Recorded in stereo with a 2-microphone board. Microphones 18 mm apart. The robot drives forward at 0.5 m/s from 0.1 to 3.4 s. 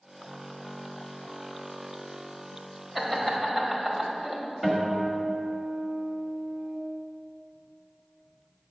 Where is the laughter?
10° right (ahead or behind), 1.5 m.